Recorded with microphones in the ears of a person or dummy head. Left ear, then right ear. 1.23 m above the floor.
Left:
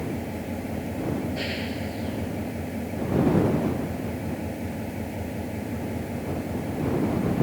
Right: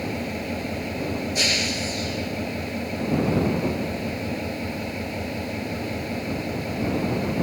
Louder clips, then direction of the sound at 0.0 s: Right 3 dB; 90° right.